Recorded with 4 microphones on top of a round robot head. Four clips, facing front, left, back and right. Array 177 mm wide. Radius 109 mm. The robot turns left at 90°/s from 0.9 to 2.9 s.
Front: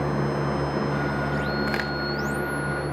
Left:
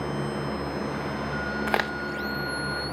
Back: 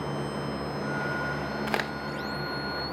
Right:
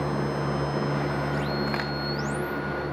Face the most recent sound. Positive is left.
turn(degrees=0)